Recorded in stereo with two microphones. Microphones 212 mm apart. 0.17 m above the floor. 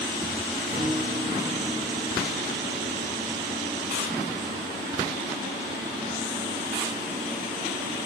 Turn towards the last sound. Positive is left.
turn(degrees=-45)  # may be behind; listen again after turning